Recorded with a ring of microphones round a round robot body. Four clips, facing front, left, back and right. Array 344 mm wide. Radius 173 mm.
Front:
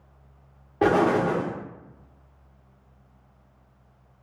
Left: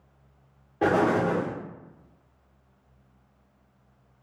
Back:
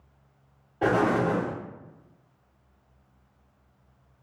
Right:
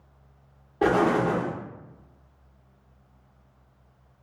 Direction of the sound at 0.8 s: 10° right.